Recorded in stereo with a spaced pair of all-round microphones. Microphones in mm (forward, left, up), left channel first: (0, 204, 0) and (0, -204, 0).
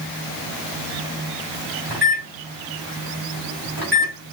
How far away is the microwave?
About 4 m.